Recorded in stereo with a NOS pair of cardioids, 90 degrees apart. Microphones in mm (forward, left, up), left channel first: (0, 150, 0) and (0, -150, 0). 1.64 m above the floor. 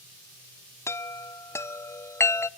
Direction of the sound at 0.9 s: 10° left.